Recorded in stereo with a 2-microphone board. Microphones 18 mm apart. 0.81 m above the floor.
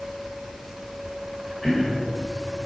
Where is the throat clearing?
15° left (ahead or behind), 2.5 m.